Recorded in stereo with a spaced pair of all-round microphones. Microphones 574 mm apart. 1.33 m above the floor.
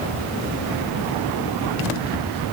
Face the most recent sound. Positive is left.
No sound to turn to.